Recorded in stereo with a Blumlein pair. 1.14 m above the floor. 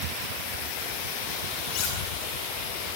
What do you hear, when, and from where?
1.7 s cutlery clinking: 40° left, 8.5 m